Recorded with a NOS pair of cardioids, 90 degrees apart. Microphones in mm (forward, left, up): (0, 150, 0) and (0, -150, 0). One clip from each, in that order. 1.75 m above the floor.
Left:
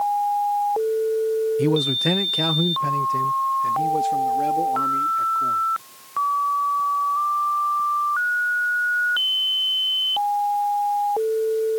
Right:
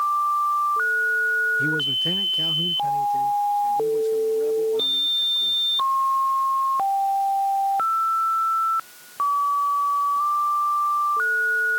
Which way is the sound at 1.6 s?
45° left.